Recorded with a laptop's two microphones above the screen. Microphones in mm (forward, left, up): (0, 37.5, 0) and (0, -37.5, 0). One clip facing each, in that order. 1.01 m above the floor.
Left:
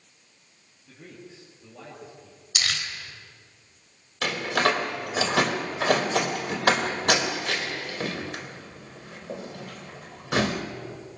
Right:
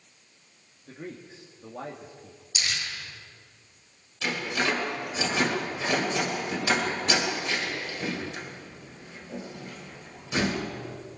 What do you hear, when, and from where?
0.9 s a man speaking: 50° right (ahead or behind), 2 m
2.5 s crumpling: 80° left, 3 m
4.2 s a door slam: 65° left (ahead or behind), 3 m